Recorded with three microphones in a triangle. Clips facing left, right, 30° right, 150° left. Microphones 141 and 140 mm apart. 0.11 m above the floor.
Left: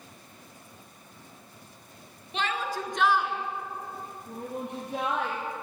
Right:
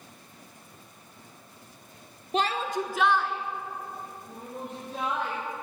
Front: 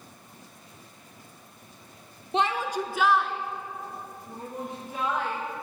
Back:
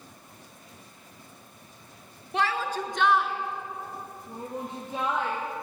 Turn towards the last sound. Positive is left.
turn(degrees=85)